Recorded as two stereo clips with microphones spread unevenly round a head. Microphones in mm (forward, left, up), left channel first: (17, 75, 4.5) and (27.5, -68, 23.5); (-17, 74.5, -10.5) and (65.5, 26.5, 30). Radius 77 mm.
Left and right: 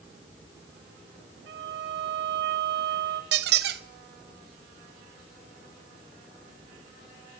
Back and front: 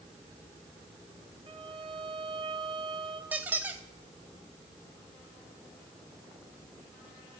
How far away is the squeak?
About 0.7 m.